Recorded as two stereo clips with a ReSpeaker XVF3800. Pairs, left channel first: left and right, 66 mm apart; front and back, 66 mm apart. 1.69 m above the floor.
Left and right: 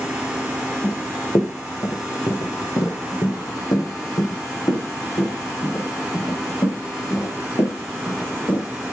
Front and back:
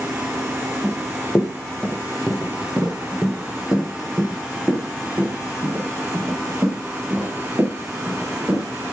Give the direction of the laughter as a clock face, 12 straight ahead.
I don't hear laughter.